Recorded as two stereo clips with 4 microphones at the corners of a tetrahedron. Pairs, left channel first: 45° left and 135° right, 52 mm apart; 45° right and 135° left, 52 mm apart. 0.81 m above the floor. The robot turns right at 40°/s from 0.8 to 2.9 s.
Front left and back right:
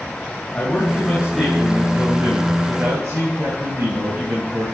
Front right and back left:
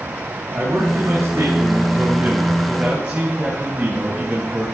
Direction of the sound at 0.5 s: 110° left.